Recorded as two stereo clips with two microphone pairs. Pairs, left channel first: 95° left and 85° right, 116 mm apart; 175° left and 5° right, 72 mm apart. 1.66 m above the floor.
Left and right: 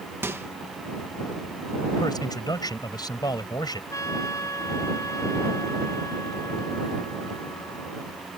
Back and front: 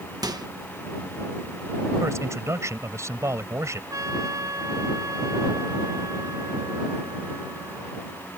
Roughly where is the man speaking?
Ahead left.